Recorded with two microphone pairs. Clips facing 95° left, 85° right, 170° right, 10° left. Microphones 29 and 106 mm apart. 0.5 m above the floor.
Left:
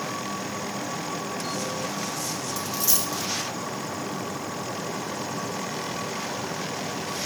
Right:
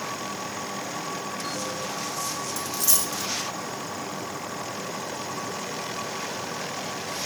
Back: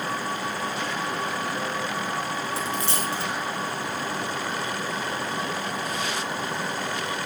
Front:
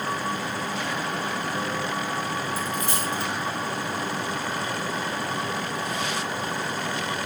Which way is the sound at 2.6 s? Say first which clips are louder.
Left 1 dB, even; 170° left.